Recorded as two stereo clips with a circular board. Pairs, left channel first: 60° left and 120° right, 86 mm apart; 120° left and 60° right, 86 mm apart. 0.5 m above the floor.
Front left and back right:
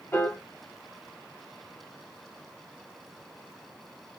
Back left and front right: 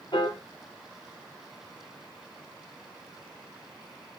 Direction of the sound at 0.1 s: 125° left.